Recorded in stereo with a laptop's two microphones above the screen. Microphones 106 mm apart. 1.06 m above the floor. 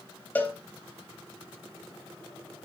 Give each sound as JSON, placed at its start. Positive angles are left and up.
{"t": 0.3, "sound": "a cowbell", "side_deg": 20, "distance_m": 0.8}